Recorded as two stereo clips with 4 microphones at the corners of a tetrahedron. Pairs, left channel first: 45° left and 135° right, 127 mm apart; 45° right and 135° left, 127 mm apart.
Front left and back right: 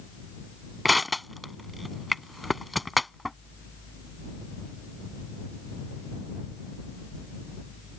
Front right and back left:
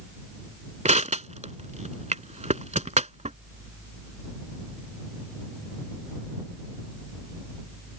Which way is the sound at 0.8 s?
135° left.